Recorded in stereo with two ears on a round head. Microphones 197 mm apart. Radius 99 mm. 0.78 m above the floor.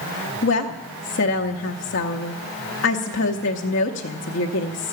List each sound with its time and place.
0.4 s a woman speaking: 55° left (ahead or behind), 0.8 m